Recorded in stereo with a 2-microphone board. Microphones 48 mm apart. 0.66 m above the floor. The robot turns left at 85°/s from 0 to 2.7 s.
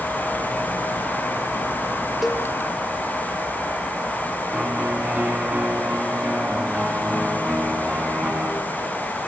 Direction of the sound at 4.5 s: 30° right (ahead or behind).